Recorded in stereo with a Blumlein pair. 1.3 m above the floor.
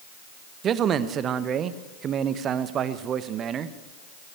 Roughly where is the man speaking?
Ahead right.